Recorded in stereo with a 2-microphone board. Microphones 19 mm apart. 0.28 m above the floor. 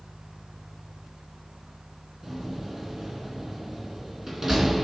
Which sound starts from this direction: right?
A door slam, at 2.2 s.